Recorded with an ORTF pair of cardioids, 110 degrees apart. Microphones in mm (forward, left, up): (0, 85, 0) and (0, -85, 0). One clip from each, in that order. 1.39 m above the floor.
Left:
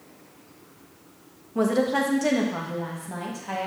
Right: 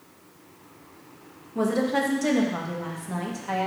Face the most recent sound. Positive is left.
turn(degrees=-10)